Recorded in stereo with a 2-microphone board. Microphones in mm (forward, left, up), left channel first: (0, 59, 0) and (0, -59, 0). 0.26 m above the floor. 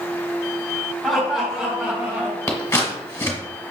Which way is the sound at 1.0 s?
Centre (ahead or behind).